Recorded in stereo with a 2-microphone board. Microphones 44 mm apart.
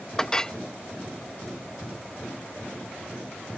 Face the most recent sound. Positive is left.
turn(degrees=15)  # may be behind; listen again after turning